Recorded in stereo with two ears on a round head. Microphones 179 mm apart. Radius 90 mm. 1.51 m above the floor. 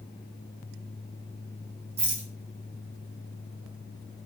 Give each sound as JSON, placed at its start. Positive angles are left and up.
{"t": 2.0, "sound": "a rattle", "side_deg": -30, "distance_m": 1.2}